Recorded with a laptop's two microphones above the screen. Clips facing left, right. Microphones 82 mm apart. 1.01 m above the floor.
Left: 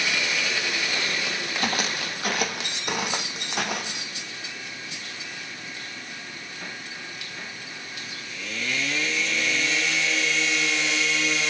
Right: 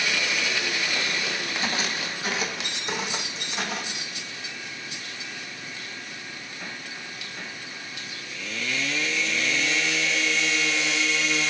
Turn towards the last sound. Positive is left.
turn(degrees=65)  # may be behind; listen again after turning